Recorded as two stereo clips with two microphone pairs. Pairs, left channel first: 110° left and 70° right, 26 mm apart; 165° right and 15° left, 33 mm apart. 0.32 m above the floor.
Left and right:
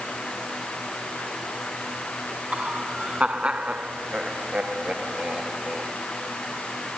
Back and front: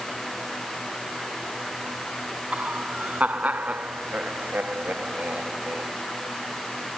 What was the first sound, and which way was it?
Laughter, 25° right.